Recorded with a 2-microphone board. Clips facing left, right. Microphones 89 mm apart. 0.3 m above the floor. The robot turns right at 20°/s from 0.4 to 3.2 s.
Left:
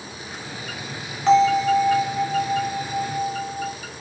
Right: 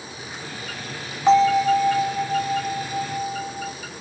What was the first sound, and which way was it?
A bell, 25° right.